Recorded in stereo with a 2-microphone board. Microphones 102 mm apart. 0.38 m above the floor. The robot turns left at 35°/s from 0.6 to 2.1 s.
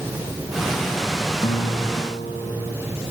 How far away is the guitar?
About 1.5 m.